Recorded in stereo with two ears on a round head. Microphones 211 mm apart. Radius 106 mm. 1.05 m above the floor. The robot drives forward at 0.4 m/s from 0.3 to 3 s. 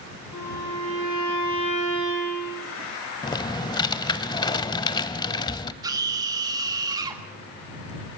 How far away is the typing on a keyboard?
About 0.9 m.